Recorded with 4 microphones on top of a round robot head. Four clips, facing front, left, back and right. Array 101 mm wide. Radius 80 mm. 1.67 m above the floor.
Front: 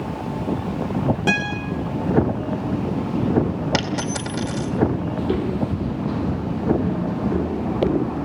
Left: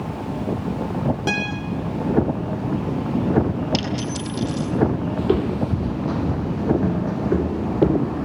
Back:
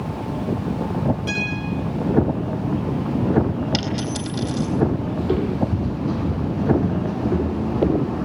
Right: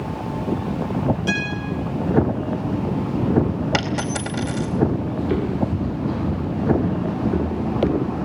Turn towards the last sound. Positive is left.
turn(degrees=95)